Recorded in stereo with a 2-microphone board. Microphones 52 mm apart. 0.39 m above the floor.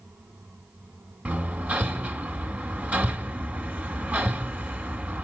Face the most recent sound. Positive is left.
turn(degrees=-30)  # may be behind; listen again after turning